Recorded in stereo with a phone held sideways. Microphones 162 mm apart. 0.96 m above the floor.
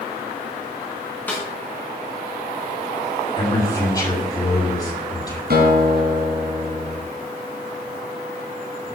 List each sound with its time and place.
1.3 s a snare drum: 10° left (ahead or behind), 4 m
3.4 s a man speaking: 25° left (ahead or behind), 7 m
5.5 s a guitar: 80° right, 3.5 m